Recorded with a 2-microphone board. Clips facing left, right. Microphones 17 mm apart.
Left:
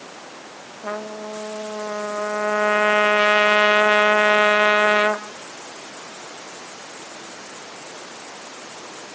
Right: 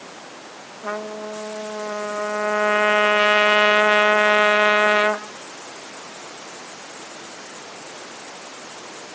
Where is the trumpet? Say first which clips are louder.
Right 1 dB; 15° right (ahead or behind), 1.2 m.